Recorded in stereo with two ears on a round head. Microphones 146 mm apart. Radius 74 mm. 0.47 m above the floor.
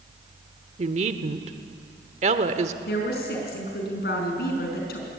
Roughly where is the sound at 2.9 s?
Left.